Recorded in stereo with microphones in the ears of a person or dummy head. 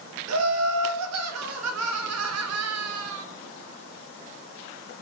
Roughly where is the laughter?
Right.